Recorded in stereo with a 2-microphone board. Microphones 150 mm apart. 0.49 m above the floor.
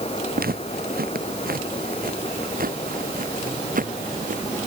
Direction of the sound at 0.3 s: 85° right.